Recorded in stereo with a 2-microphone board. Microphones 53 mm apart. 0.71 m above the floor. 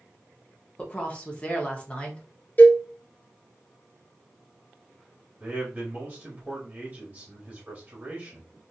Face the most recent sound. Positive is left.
turn(degrees=-20)  # may be behind; listen again after turning